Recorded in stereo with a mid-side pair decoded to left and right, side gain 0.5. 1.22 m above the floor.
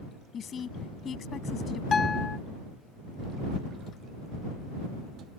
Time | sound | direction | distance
0.3 | a woman speaking | 50° left | ?
1.9 | a guitar | 35° left | ?